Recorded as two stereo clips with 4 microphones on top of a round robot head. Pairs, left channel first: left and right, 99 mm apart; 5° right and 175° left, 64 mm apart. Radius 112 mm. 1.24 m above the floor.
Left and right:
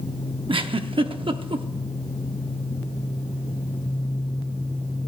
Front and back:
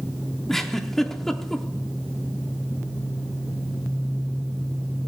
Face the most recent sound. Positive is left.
turn(degrees=-85)